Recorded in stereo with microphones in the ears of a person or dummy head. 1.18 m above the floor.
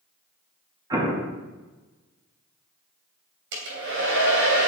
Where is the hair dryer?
60° right (ahead or behind), 3 m.